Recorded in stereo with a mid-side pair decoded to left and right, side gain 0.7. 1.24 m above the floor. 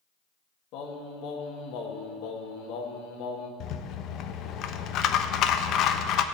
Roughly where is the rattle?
Ahead left.